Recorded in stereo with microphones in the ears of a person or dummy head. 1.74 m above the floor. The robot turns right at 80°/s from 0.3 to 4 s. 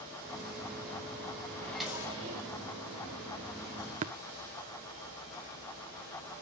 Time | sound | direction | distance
1.6 | a microwave | 160° left | 7 m
4.0 | tapping | 40° right (ahead or behind) | 1.5 m